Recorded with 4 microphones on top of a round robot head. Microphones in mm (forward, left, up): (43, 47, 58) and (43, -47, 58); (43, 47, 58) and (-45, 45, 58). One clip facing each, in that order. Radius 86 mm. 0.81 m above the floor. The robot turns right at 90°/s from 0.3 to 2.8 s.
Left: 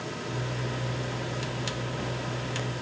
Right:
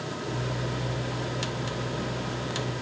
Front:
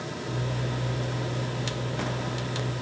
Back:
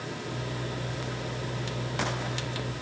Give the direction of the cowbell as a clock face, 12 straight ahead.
No cowbell in this recording.